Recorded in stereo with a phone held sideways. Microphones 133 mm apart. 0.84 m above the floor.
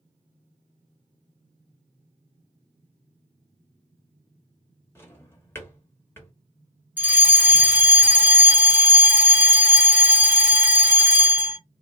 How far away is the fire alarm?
About 1.6 m.